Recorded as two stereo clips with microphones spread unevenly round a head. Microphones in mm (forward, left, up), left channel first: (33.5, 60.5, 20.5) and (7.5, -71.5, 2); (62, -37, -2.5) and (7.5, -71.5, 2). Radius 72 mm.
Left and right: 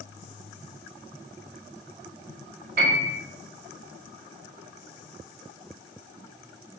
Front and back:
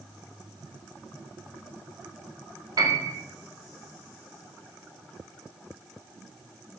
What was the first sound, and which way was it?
A piano, 130° right.